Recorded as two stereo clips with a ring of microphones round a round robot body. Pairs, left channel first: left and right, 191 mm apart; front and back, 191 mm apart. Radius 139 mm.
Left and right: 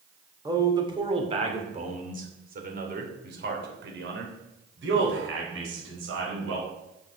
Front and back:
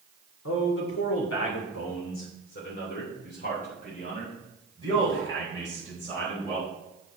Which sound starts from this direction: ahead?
A man speaking, at 0.5 s.